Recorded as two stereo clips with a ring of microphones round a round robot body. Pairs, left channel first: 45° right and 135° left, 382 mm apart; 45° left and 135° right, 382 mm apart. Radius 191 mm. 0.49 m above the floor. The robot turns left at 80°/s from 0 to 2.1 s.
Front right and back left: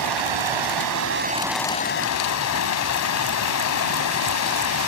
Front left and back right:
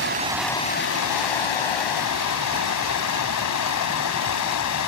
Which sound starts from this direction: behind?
Running water, at 0.0 s.